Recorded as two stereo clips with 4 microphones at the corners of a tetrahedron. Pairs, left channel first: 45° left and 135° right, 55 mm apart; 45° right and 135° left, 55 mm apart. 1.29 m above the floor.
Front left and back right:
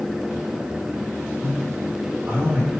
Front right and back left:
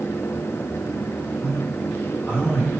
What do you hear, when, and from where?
1.4 s a man speaking: 90° right, 1.1 m